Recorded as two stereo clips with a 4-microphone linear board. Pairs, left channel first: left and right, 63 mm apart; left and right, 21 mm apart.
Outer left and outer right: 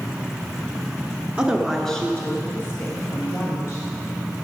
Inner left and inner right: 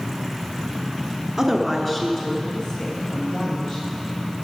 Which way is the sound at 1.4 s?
15° right (ahead or behind).